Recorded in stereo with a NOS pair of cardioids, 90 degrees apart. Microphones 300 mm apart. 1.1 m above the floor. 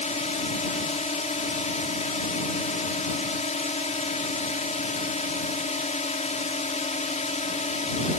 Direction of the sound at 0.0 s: 25° left.